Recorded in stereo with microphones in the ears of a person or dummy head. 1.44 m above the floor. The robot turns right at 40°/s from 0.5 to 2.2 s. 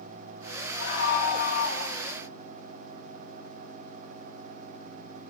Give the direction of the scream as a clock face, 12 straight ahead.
9 o'clock.